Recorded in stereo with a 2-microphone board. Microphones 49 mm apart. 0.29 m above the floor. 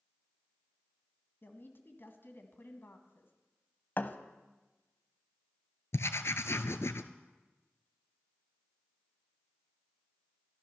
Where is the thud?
45° left (ahead or behind), 0.8 m.